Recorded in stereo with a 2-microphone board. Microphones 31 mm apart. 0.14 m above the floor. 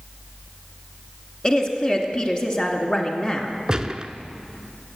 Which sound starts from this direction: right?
A gunshot, at 3.7 s.